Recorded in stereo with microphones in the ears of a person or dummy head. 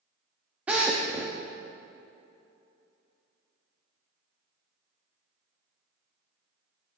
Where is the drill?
5° right (ahead or behind), 1.0 m.